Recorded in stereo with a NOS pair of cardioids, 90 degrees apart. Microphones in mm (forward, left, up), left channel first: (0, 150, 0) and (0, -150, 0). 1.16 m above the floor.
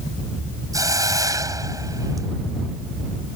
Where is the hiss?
10° right.